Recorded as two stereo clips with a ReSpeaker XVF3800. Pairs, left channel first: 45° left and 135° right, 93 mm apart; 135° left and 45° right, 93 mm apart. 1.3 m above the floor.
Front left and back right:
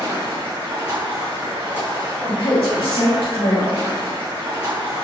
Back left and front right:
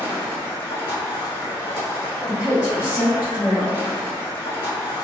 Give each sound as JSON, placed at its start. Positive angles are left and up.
{"t": 0.0, "sound": "running water", "azimuth_deg": 170, "distance_m": 1.6}
{"t": 2.3, "sound": "a woman speaking", "azimuth_deg": 35, "distance_m": 0.9}